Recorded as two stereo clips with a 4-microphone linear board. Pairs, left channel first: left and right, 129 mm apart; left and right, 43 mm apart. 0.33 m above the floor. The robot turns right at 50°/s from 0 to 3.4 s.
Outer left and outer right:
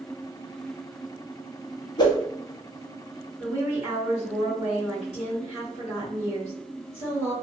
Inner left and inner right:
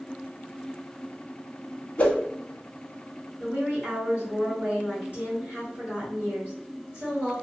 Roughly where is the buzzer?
I don't hear a buzzer.